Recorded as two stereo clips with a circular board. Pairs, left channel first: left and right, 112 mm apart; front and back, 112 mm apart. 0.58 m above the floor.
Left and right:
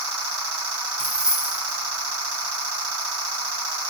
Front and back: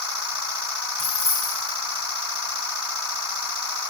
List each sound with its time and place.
1.0 s keys jangling: 10° right, 4 m